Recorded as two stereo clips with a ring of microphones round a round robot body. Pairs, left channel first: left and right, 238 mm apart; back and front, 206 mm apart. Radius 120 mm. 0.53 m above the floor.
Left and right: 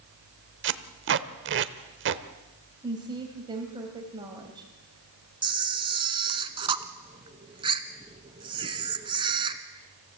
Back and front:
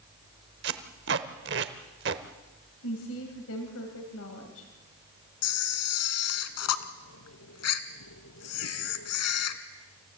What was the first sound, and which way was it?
Tape being pulled, 45° right.